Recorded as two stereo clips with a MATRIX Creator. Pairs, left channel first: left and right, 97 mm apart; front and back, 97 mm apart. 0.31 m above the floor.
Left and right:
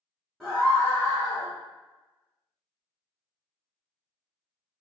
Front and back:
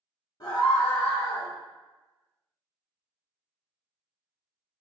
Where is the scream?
Straight ahead, 1.5 m; by 1.5 s 65° left, 1.9 m.